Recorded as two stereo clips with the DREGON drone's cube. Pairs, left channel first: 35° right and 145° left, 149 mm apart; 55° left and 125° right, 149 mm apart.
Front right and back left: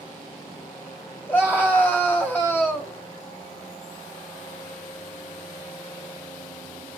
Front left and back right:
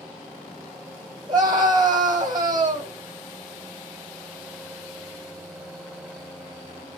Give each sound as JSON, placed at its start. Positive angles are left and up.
{"t": 1.3, "sound": "a scream", "azimuth_deg": -100, "distance_m": 1.3}